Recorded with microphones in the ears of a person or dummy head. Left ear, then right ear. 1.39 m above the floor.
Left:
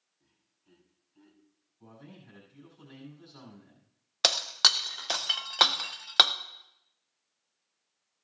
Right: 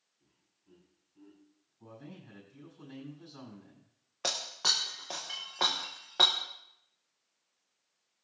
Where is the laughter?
60° left (ahead or behind), 4 m.